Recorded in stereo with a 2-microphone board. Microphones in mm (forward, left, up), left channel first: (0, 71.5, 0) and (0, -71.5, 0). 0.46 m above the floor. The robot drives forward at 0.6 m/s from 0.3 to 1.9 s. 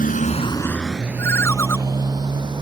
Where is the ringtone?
20° left (ahead or behind); by 1.8 s 15° left (ahead or behind).